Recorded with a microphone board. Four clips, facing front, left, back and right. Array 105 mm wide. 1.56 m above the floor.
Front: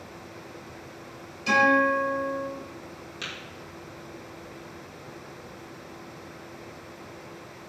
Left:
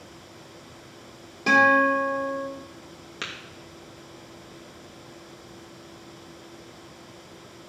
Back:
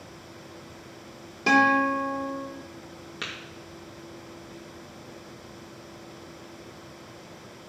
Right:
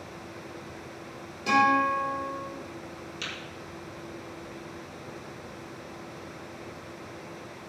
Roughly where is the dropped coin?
I don't hear a dropped coin.